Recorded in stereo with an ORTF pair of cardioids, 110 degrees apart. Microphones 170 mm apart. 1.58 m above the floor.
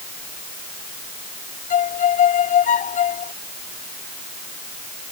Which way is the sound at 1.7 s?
50° left.